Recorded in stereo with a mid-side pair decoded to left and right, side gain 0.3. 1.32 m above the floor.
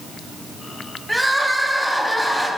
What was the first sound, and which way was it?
Crying, 10° right.